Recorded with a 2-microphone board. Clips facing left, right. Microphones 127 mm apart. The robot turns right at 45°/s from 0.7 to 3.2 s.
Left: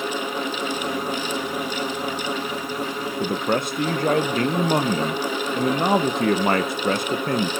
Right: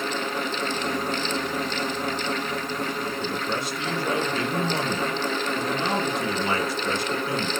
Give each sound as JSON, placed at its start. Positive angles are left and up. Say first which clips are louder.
{"t": 3.2, "sound": "a man speaking", "louder": "left 5 dB", "side_deg": 55, "distance_m": 0.6}